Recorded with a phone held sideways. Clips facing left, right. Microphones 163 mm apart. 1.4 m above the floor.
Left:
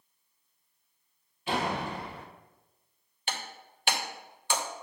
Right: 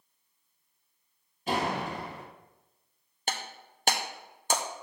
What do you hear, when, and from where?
1.5 s a door slam: 40° right (ahead or behind), 1.8 m
3.3 s breaking glass: 40° right (ahead or behind), 0.8 m